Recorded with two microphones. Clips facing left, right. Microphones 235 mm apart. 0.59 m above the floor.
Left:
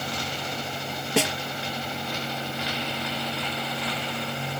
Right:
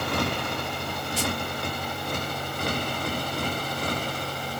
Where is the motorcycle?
65° right (ahead or behind); by 4.6 s 45° right (ahead or behind).